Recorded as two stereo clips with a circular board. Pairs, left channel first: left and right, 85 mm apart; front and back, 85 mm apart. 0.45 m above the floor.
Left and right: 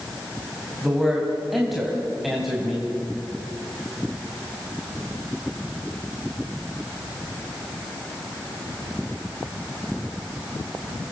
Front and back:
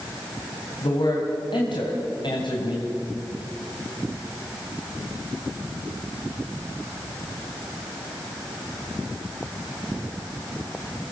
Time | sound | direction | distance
0.8 | a man speaking | straight ahead | 3 m